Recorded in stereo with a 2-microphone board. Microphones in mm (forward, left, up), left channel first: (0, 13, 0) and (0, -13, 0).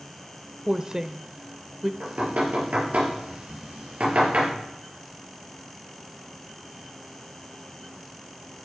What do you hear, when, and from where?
0.7 s a woman speaking: 25° right (ahead or behind), 0.9 m
2.0 s knocking: 75° right (ahead or behind), 5.5 m